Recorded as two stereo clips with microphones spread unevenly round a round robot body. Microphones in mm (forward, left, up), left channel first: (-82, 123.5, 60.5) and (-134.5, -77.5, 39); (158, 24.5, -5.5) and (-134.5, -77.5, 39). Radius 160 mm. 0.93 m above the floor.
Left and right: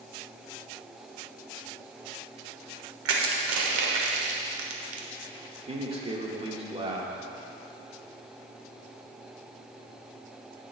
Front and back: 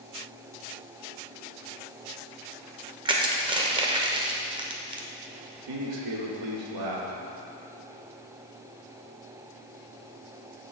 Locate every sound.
3.0 s crushing: 90° right, 1.0 m
5.5 s a man speaking: 160° right, 1.8 m